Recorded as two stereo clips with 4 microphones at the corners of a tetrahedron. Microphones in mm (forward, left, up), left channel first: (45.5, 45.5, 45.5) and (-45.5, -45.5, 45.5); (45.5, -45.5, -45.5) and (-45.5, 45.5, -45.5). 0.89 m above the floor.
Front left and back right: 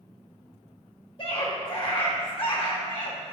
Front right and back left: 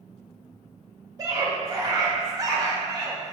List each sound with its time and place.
1.2 s a scream: 80° left, 1.3 m